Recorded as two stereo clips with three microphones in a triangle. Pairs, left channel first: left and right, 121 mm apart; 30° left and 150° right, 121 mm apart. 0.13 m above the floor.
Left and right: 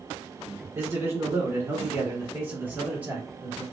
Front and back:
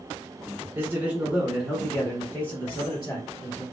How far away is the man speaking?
About 1.5 m.